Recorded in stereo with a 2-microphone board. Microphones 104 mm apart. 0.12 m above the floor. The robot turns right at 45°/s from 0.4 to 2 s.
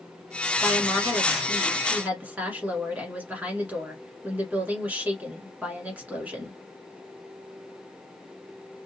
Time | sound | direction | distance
0.6 | a woman speaking | 10° left (ahead or behind) | 1.7 m